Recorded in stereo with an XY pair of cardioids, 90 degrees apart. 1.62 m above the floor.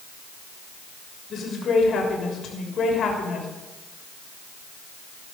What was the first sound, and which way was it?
A woman speaking, 65° left.